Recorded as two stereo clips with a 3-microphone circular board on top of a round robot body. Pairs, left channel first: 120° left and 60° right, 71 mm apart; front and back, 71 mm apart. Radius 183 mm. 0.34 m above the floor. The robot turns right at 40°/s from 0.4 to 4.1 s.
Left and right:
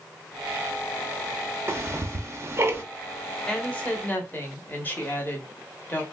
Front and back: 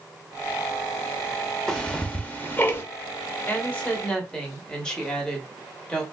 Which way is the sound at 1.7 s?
75° right.